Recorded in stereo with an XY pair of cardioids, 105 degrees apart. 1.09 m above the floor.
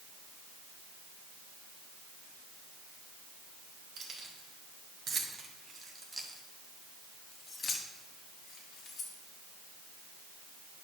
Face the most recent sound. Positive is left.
turn(degrees=60)